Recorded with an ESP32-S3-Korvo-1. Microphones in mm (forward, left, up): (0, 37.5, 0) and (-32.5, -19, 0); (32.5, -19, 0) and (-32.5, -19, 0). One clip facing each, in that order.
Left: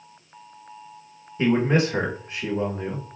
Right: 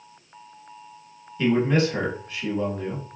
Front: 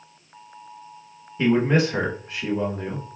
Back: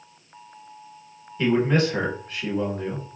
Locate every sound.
1.4 s a man speaking: 50° left, 1.0 m